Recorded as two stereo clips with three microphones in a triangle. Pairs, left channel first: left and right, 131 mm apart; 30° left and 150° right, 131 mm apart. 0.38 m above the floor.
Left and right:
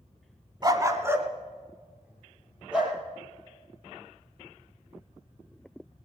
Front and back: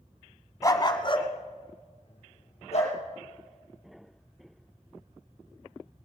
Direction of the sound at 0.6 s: 35° right.